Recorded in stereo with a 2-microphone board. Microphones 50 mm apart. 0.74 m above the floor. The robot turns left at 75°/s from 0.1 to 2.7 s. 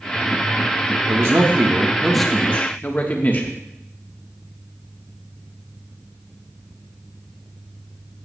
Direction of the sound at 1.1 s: 100° right.